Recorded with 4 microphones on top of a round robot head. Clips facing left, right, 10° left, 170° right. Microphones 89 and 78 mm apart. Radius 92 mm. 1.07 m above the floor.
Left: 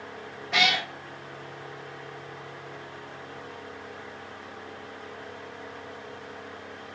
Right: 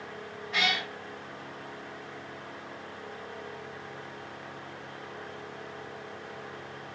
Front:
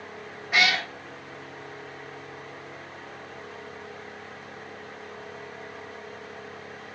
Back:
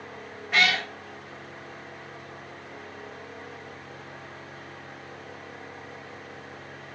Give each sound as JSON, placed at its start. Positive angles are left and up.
{"t": 0.5, "sound": "a cat meowing", "azimuth_deg": 90, "distance_m": 0.7}